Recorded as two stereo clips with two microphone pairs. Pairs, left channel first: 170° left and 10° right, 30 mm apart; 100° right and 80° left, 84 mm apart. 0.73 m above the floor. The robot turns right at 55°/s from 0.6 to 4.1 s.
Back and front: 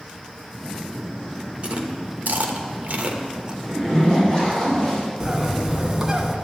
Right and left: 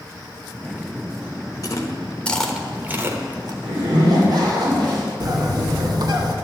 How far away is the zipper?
About 2.5 m.